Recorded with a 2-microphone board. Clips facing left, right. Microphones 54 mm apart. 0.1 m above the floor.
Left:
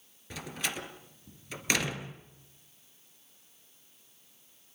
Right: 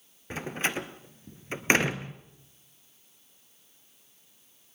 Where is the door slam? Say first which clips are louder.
Right 6 dB; 35° right (ahead or behind), 1.4 m.